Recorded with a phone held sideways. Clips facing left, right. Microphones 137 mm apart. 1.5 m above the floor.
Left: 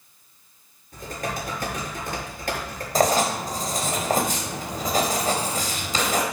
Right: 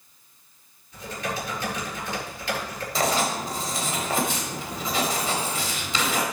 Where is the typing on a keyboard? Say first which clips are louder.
Left 1 dB; 45° left (ahead or behind), 6.5 m.